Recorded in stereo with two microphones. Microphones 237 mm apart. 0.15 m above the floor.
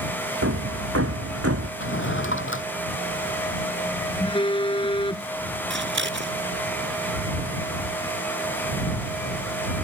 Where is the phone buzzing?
20° left (ahead or behind).